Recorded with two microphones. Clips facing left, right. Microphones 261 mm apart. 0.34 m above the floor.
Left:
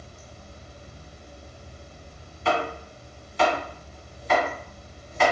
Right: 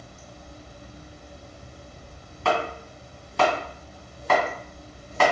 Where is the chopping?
75° right (ahead or behind), 1.6 m.